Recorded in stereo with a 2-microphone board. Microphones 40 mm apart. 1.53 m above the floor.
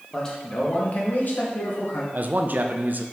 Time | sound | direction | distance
0.1 | a man speaking | 20° left (ahead or behind) | 1.8 m
2.1 | a man speaking | 50° right (ahead or behind) | 0.6 m